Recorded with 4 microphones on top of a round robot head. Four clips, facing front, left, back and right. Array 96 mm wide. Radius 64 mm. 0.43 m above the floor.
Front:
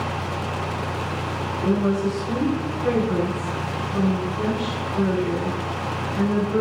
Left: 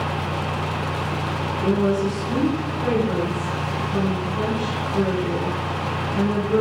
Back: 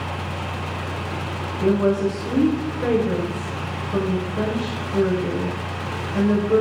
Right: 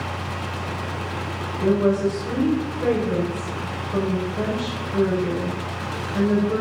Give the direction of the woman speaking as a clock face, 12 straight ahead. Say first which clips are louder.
Right 2 dB, back 3 dB; 5 o'clock.